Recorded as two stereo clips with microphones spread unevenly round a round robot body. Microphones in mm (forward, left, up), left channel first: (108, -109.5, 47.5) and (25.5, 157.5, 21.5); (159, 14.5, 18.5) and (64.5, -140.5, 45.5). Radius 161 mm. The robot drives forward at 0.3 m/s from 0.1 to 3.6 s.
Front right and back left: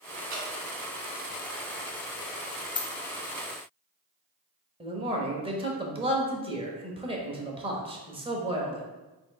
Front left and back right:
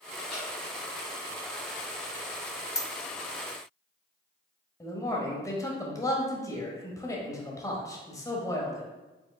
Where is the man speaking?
80° left, 1.0 m.